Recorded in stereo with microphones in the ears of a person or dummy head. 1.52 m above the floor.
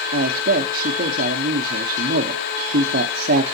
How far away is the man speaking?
About 1.0 m.